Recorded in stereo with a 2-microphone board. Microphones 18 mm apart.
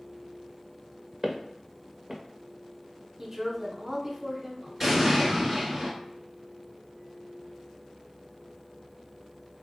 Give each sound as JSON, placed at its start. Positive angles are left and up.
{"t": 1.2, "sound": "footsteps", "side_deg": -20, "distance_m": 1.1}
{"t": 3.2, "sound": "a woman speaking", "side_deg": -20, "distance_m": 1.1}
{"t": 4.8, "sound": "an explosion", "side_deg": 0, "distance_m": 1.8}